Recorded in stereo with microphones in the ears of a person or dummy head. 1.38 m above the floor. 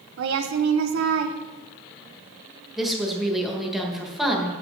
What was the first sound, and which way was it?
A woman speaking, 70° right (ahead or behind).